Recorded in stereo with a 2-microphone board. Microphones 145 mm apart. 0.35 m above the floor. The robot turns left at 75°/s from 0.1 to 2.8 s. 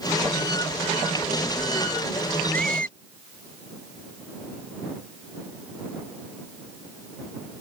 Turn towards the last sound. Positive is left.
turn(degrees=-75)  # may be behind; listen again after turning